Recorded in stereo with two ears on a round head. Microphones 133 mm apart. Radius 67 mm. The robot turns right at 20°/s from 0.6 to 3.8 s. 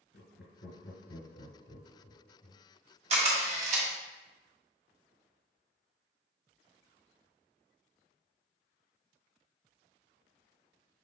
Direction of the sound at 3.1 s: 45° right (ahead or behind).